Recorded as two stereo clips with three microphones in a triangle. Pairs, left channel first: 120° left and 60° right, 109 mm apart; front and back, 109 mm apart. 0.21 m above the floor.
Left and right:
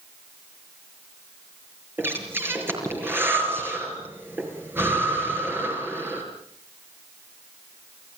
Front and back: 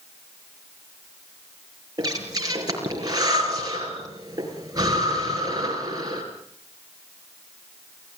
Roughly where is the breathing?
Behind right.